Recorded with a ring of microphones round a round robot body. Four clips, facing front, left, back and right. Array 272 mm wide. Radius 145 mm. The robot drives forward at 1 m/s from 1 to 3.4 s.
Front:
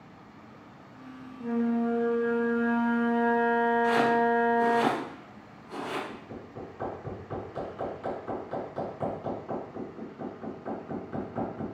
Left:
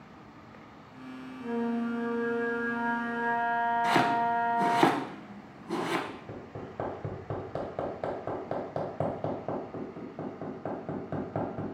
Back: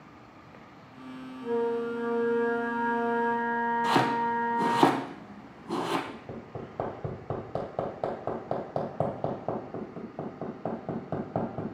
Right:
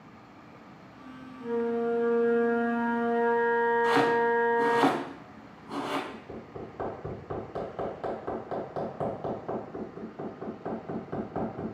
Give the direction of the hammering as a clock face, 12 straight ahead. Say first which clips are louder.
Right 1 dB, back 2 dB; 7 o'clock.